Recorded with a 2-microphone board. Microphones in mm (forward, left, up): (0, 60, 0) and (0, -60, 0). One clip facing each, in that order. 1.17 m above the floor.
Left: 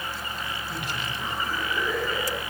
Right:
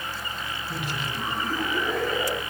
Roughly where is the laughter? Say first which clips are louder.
Right 1 dB; right.